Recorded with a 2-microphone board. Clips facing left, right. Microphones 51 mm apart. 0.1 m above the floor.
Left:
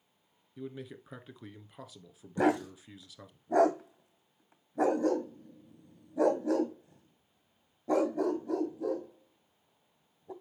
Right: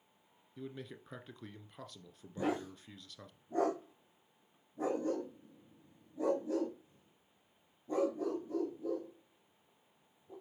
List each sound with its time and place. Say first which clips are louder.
0.6 s a man speaking: left 4 dB; 5° left (ahead or behind), 1.1 m
2.4 s a dog barking: left 8 dB; 80° left, 1.8 m